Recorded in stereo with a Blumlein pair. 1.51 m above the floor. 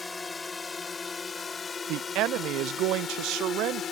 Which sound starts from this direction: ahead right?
A man speaking, at 1.9 s.